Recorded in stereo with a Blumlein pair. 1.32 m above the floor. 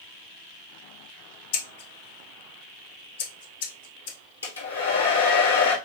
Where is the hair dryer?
70° left, 1.2 m.